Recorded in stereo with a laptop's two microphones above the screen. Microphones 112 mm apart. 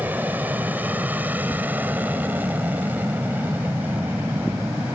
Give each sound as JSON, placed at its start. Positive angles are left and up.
{"t": 0.0, "sound": "an aircraft", "side_deg": -15}